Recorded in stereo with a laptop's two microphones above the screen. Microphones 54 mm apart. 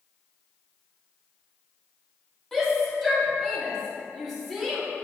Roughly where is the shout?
Centre.